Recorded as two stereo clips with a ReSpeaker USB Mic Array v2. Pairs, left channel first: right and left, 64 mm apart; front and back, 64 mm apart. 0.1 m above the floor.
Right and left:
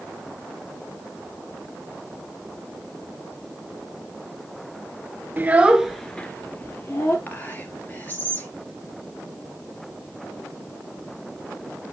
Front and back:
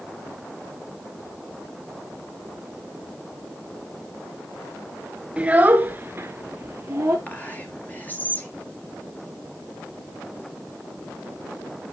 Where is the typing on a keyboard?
No typing on a keyboard in this recording.